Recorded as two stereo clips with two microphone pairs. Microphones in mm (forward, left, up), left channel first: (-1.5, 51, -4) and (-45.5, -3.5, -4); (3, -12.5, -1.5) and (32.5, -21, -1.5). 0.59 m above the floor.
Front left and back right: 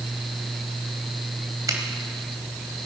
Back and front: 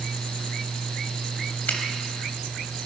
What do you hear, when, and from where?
1.7 s a finger snap: 170° right, 2.5 m